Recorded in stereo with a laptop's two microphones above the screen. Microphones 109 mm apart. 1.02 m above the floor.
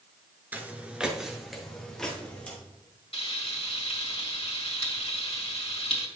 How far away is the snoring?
No snoring in this recording.